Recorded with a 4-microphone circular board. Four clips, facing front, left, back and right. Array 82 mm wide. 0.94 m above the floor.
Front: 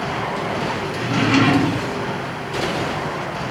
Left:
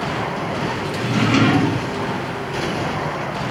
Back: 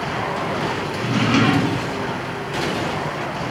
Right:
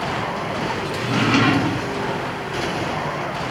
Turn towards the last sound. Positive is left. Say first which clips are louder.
# left 1 dB, front 1 dB
turn(degrees=-30)